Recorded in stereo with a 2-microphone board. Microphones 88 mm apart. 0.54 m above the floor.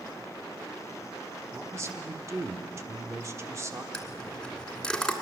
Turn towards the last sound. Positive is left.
turn(degrees=10)  # may be behind; listen again after turning